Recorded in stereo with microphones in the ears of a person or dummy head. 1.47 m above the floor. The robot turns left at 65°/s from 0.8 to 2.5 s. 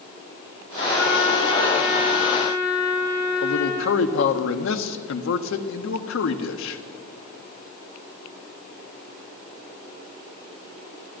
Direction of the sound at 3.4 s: 70° left (ahead or behind).